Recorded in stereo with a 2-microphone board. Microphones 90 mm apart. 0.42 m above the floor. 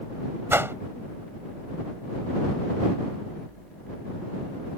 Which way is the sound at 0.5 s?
30° right (ahead or behind).